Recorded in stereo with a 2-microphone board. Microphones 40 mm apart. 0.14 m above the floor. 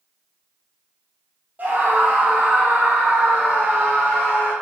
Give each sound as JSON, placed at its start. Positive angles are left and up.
{"t": 1.6, "sound": "a scream", "side_deg": -45, "distance_m": 4.0}